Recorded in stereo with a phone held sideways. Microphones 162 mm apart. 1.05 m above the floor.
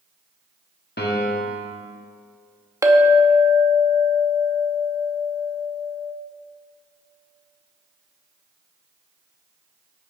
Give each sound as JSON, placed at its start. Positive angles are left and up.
{"t": 1.0, "sound": "a piano", "side_deg": 90, "distance_m": 1.4}
{"t": 2.8, "sound": "a clink", "side_deg": -20, "distance_m": 0.9}